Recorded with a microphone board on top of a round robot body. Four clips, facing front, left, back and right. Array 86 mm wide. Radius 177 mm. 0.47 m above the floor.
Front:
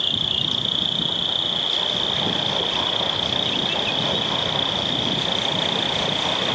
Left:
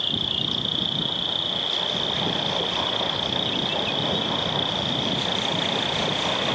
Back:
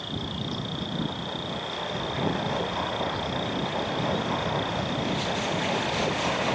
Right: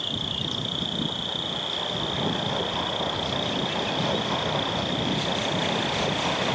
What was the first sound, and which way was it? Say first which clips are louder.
An insect: left 2 dB, front 2 dB; 15° left.